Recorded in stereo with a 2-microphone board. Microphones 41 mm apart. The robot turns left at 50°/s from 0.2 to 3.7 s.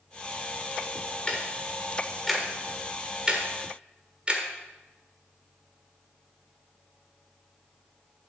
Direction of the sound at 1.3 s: 25° left (ahead or behind).